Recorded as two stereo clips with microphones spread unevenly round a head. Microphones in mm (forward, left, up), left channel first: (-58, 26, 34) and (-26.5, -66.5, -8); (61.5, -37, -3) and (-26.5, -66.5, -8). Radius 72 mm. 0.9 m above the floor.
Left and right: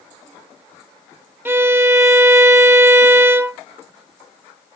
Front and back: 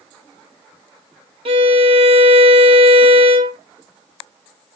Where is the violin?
140° right, 1.0 m.